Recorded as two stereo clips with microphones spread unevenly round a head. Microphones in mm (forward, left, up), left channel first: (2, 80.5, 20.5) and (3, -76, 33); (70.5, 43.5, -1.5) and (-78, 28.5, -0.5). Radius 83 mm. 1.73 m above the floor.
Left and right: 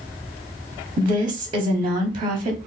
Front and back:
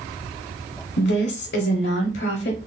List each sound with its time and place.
1.0 s a woman speaking: 25° right, 0.6 m